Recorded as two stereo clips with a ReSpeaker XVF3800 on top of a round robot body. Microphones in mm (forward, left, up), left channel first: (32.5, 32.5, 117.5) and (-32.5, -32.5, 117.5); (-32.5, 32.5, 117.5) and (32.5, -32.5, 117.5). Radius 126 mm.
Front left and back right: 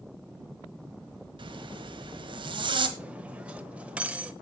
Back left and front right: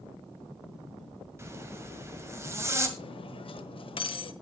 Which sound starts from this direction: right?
A zipper, at 1.4 s.